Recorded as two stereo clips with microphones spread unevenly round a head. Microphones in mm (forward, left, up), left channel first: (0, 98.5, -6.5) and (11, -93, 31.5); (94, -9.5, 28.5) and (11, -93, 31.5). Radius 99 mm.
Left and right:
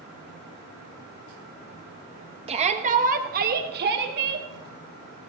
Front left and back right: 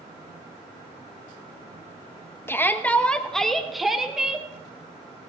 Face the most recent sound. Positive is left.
turn(degrees=-50)